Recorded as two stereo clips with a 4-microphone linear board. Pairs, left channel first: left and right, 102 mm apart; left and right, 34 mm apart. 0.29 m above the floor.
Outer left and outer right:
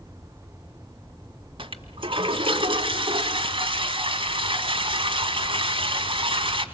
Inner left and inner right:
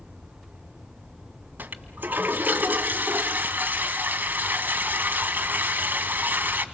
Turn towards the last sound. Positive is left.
turn(degrees=-60)  # may be behind; listen again after turning